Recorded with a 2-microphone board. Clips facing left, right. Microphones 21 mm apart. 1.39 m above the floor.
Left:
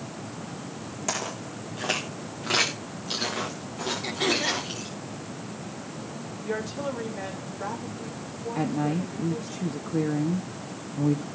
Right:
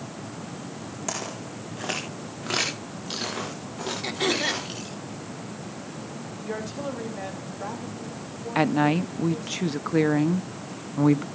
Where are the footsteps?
Centre (ahead or behind), 4.5 m; by 5.0 s 10° right (ahead or behind), 6 m.